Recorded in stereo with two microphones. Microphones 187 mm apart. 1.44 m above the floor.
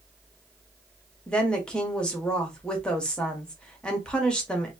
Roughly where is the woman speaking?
Centre.